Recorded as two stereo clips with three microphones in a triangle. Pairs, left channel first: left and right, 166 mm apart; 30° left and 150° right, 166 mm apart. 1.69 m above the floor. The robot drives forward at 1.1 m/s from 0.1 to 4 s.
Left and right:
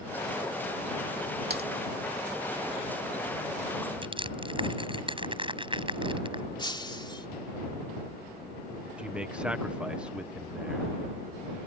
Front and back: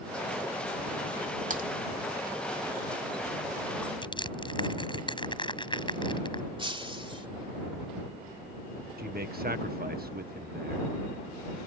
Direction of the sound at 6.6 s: 150° left.